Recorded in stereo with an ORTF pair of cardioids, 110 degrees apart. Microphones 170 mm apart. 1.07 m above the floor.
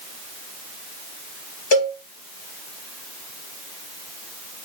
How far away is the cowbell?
About 1.1 m.